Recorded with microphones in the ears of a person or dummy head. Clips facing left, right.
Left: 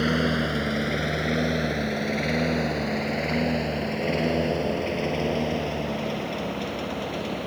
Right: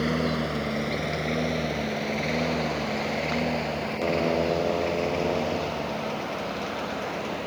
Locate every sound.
0.0 s a lawn mower: 10° left (ahead or behind); by 7.5 s 20° left (ahead or behind)